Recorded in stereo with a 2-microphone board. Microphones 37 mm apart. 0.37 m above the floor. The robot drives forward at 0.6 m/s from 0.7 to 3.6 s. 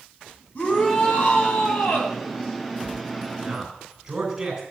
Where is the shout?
45° left (ahead or behind), 3.5 m; by 2.1 s 55° left (ahead or behind), 3 m.